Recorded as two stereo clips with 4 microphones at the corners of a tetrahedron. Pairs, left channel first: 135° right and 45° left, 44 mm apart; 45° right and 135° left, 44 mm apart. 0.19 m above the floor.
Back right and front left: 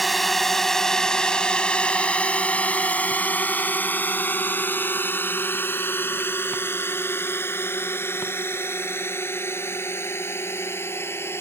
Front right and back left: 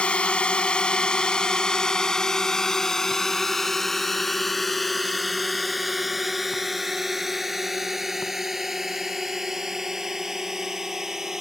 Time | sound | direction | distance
0.0 | a drone | 45° right | ?